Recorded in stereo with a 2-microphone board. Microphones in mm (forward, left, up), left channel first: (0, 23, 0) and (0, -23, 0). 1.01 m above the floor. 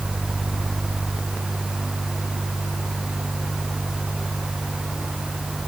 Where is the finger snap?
I don't hear a finger snap.